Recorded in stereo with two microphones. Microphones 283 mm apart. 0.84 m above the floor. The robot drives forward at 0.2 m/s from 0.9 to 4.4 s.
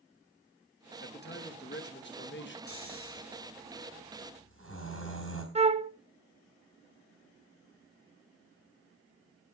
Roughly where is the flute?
Right.